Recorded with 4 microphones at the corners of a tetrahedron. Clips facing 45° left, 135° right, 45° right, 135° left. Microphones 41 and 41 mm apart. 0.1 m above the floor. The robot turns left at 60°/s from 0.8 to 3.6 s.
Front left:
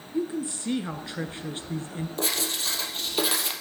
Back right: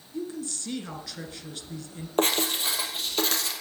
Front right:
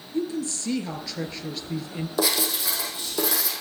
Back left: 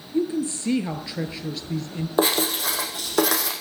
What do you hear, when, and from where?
0.1 s a woman speaking: 95° left, 1.2 m; by 2.1 s 15° left, 1.2 m
2.2 s writing: 170° right, 2.5 m; by 3.5 s 105° left, 2.5 m